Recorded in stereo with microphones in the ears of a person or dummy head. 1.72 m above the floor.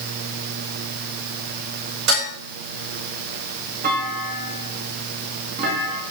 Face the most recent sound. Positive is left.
turn(degrees=-45)  # may be behind; listen again after turning